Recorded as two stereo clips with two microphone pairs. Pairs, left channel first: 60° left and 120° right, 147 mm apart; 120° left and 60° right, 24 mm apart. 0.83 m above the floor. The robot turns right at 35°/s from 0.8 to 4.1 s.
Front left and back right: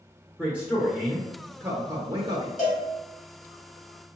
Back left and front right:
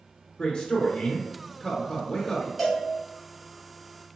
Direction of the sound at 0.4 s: 155° left.